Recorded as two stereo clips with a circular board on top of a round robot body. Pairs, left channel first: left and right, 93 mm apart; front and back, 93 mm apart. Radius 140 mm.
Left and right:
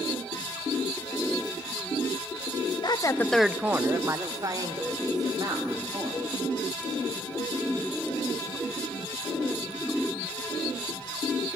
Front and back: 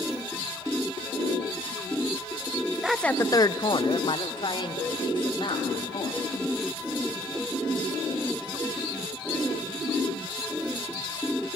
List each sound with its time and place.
2.8 s a woman speaking: 95° left, 1.0 m; by 6.2 s 40° right, 5 m